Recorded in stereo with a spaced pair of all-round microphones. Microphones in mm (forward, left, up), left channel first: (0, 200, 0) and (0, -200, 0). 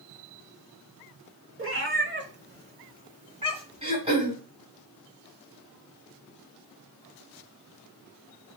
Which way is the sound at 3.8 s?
15° right (ahead or behind).